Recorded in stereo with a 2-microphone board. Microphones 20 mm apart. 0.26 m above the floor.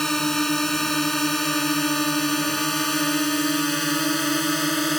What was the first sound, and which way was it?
A drone, 20° left (ahead or behind).